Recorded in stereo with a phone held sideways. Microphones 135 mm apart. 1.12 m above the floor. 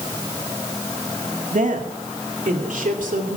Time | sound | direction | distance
1.5 | a woman speaking | 70° right (ahead or behind) | 2 m